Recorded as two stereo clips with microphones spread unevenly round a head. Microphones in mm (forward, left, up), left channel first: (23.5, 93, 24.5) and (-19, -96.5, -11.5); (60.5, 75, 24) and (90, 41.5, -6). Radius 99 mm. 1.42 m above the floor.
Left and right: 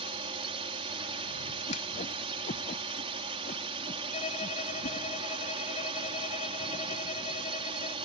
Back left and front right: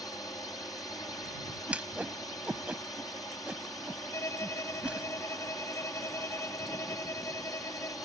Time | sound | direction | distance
0.0 | a drone | 165° right | ?
1.7 | a whoosh | 35° left | ?
4.1 | a violin | 135° left | ?